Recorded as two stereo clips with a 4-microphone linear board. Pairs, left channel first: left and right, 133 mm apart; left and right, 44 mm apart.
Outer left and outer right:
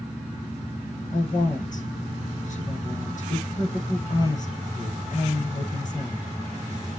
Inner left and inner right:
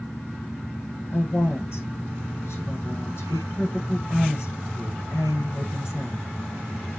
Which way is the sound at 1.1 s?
70° left (ahead or behind).